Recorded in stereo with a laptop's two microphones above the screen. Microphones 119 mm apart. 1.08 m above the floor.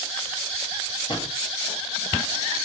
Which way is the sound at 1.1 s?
40° left (ahead or behind).